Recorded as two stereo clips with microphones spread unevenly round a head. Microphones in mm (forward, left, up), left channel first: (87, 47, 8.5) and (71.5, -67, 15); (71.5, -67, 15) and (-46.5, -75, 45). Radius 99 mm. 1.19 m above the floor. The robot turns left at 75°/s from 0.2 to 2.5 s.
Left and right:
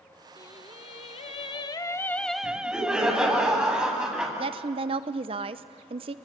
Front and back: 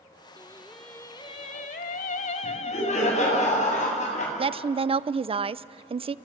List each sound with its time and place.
0.4 s singing: 140° left, 0.9 m; by 3.4 s 20° right, 0.9 m
2.4 s laughter: 10° right, 8 m; by 4.3 s 15° right, 8 m
4.4 s a woman speaking: 130° right, 0.6 m